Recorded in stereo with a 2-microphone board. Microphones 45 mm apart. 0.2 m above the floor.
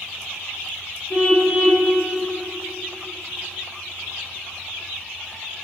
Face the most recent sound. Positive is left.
turn(degrees=45)  # may be behind; listen again after turning